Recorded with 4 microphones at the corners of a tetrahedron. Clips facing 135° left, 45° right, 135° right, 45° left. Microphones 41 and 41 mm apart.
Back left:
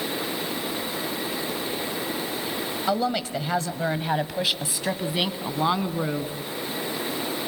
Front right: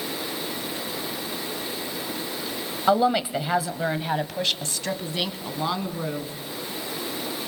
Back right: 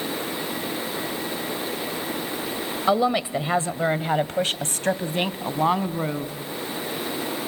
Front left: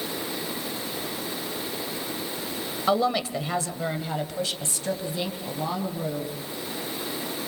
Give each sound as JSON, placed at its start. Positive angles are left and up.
{"t": 2.9, "sound": "a woman speaking", "azimuth_deg": -65, "distance_m": 1.0}